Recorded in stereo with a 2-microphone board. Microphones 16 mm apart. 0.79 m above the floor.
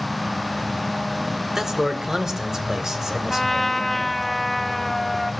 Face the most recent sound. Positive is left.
turn(degrees=5)  # may be behind; listen again after turning